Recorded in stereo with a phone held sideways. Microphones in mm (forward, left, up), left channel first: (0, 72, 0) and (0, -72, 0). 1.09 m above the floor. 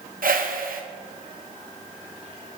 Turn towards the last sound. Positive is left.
turn(degrees=-75)  # may be behind; listen again after turning